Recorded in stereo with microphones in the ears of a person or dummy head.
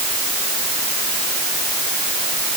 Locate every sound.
Only background noise.